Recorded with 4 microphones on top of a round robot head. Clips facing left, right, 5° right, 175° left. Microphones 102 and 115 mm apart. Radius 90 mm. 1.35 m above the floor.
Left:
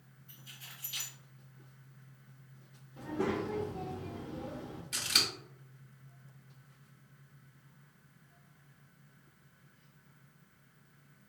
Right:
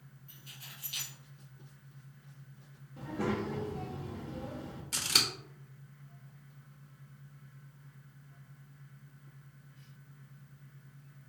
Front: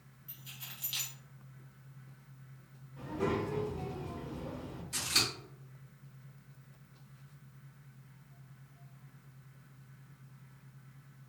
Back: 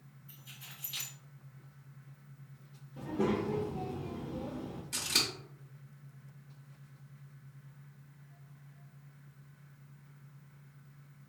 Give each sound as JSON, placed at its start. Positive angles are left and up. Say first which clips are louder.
{"t": 0.3, "sound": "keys jangling", "louder": "even, front 2 dB", "azimuth_deg": -35, "distance_m": 1.6}
{"t": 3.0, "sound": "a child speaking", "louder": "left 1 dB, back 2 dB", "azimuth_deg": 175, "distance_m": 0.8}
{"t": 4.9, "sound": "scissors", "louder": "right 2 dB, front 2 dB", "azimuth_deg": -135, "distance_m": 1.1}